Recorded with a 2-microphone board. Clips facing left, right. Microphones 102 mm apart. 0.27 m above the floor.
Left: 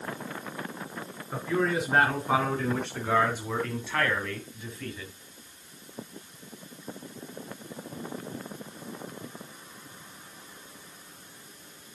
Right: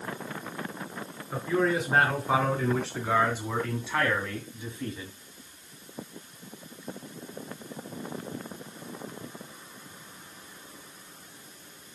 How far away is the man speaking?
About 4 m.